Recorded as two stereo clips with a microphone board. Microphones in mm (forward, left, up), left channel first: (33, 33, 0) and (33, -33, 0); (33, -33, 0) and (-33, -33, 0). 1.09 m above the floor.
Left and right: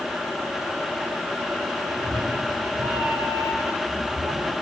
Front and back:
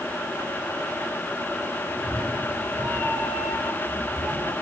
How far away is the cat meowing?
About 4.5 m.